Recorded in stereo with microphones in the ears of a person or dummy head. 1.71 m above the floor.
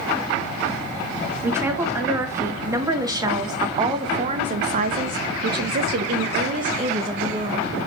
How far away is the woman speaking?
About 3 m.